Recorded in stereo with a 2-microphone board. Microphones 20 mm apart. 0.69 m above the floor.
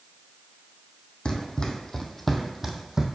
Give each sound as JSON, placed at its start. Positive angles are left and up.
{"t": 1.2, "sound": "running footsteps", "side_deg": 50, "distance_m": 1.1}